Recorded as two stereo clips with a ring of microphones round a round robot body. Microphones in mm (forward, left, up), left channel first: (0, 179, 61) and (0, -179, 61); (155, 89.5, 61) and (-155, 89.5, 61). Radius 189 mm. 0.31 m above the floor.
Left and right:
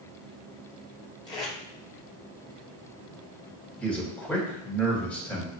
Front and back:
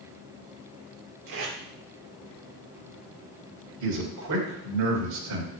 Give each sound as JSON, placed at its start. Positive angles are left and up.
{"t": 1.3, "sound": "tape being pulled", "azimuth_deg": 165, "distance_m": 3.0}
{"t": 3.8, "sound": "a man speaking", "azimuth_deg": 175, "distance_m": 3.0}